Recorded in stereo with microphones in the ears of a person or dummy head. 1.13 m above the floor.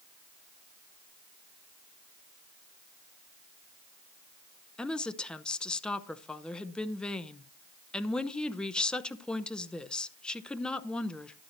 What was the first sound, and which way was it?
A woman speaking, centre (ahead or behind).